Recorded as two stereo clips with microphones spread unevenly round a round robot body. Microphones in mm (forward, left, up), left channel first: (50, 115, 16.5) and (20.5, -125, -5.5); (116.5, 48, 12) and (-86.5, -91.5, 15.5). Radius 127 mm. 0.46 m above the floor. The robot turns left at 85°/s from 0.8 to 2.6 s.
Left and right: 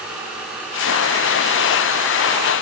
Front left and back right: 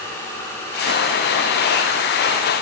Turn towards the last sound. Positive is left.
No sound to turn to.